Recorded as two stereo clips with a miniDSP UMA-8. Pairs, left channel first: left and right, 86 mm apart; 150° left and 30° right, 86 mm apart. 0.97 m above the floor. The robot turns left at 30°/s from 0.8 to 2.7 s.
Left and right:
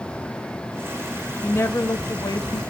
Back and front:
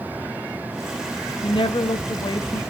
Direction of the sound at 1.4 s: 155° left.